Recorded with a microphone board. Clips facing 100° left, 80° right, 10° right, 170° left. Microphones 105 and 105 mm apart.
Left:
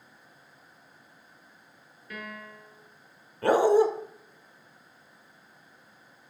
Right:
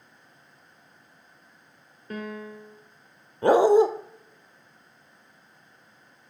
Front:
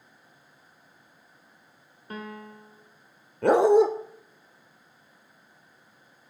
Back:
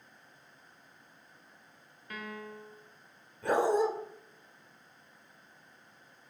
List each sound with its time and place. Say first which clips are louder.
2.1 s a piano: right 7 dB, front 3 dB; 55° right, 1.3 m
3.4 s a dog barking: right 3 dB, front 9 dB; 10° right, 1.2 m